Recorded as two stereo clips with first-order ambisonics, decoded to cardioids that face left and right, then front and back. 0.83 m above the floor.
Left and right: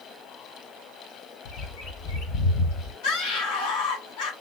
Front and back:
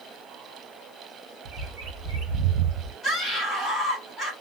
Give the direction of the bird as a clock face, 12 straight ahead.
8 o'clock.